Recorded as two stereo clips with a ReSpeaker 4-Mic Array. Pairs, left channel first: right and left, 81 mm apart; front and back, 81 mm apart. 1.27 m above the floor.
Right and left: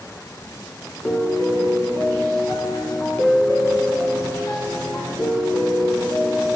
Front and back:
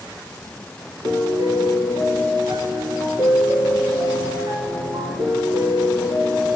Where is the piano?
155° right, 3.5 m.